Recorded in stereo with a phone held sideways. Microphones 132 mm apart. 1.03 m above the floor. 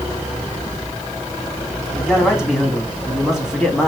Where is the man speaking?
5° right (ahead or behind), 2.0 m.